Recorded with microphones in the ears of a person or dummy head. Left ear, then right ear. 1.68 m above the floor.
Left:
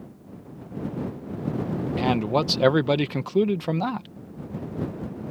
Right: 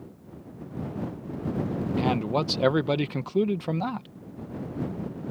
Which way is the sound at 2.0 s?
5° left (ahead or behind).